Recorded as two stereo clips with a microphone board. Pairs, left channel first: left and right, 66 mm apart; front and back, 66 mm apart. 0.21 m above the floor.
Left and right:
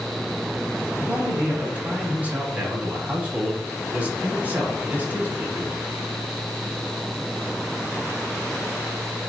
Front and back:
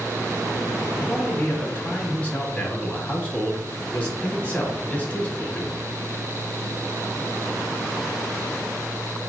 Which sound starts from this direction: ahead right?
A man speaking, at 1.0 s.